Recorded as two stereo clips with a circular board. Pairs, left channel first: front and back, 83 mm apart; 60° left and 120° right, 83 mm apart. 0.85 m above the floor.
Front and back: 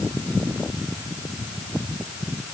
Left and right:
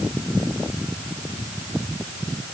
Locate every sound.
Only background noise.